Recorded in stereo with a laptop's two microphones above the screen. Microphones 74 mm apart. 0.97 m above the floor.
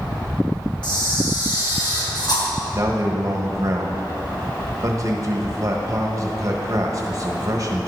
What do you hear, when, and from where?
0.8 s a camera shutter: 70° left (ahead or behind), 3 m
2.7 s a man speaking: 45° right (ahead or behind), 1.2 m